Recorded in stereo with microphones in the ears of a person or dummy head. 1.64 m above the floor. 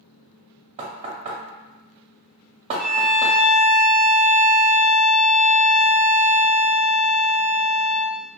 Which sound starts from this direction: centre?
A violin, at 2.8 s.